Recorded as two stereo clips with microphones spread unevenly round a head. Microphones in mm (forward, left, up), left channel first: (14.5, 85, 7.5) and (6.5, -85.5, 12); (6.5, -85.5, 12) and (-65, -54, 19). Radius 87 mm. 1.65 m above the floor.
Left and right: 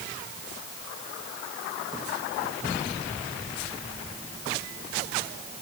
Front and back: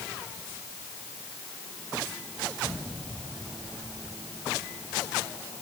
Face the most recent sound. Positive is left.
No sound to turn to.